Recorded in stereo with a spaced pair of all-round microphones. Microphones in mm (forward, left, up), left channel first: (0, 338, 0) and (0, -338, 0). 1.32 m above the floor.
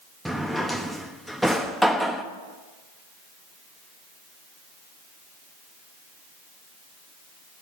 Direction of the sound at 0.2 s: Centre (ahead or behind).